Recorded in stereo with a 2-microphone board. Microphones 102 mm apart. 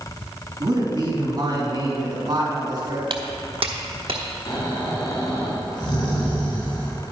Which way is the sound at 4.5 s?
50° left (ahead or behind).